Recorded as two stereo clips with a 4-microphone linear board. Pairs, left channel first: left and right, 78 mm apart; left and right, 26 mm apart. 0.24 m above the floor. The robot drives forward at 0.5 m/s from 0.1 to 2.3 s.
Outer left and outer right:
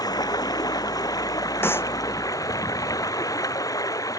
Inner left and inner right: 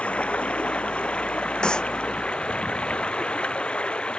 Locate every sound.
0.0 s running water: 55° left (ahead or behind); by 4.2 s 45° left (ahead or behind)
1.6 s a clap: 30° left (ahead or behind)